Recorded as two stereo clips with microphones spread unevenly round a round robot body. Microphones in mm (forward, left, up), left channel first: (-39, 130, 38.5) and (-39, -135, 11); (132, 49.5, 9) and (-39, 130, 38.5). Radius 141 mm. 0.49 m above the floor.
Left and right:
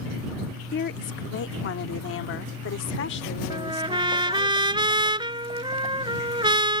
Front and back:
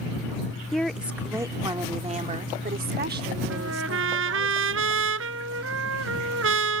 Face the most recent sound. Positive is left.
turn(degrees=-165)